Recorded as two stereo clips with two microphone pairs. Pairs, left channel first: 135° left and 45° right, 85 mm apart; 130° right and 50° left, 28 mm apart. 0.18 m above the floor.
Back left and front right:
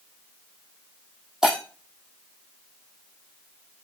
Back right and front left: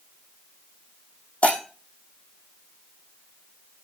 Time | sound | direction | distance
1.4 | breaking glass | 125° right | 3.5 m